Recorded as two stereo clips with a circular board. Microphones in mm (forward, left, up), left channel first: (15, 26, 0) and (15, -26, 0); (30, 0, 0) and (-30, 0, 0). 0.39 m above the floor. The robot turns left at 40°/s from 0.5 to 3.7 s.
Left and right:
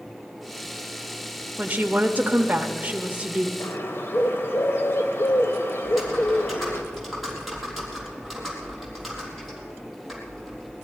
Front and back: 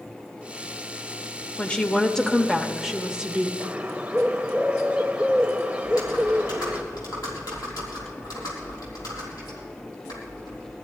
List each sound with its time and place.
1.6 s a woman speaking: 55° right, 0.9 m; by 3.5 s 130° right, 0.9 m
3.6 s a bird: 115° left, 1.1 m; by 6.8 s 110° left, 1.1 m
5.8 s typing on a keyboard: 5° right, 3.5 m